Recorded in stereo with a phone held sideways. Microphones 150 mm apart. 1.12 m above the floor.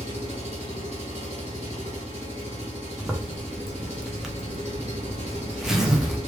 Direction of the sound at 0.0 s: 50° right (ahead or behind).